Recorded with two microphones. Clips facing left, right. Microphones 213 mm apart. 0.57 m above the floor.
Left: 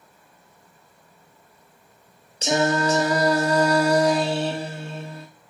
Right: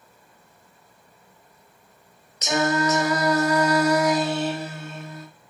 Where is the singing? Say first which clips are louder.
Left 1 dB; 30° left (ahead or behind), 0.5 m.